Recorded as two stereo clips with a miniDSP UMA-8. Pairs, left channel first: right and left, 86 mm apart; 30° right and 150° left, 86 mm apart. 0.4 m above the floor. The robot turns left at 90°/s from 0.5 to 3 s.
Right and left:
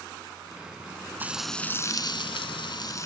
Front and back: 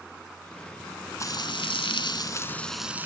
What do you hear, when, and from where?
1.2 s frying: 20° left, 0.8 m; by 3.1 s 140° right, 0.8 m